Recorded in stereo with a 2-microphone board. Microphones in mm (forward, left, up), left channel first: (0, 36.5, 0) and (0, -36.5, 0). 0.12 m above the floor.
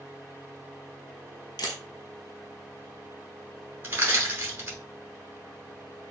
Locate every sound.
1.6 s a camera shutter: 70° left (ahead or behind), 0.9 m
3.8 s crushing: 25° right (ahead or behind), 1.2 m